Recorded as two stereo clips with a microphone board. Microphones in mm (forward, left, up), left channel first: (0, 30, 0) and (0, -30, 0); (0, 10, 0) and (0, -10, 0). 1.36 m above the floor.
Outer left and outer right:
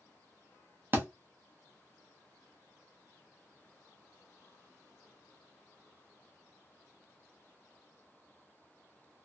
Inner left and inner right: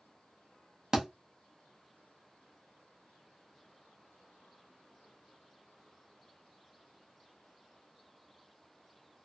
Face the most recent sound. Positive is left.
turn(degrees=-30)  # may be behind; listen again after turning